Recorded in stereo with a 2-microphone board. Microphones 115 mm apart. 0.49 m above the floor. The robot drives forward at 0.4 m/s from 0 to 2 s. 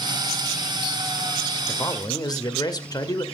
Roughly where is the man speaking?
Left.